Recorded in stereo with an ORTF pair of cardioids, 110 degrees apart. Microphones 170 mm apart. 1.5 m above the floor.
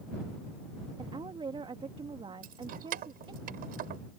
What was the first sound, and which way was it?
A woman speaking, 30° right.